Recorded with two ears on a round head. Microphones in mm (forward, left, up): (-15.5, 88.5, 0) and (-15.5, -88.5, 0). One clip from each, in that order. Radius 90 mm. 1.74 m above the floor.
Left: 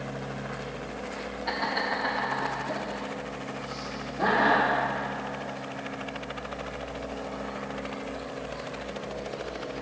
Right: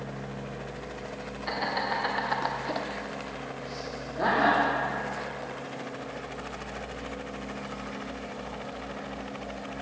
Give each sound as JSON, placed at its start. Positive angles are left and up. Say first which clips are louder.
{"t": 1.5, "sound": "laughter", "louder": "left 1 dB", "side_deg": -5, "distance_m": 1.1}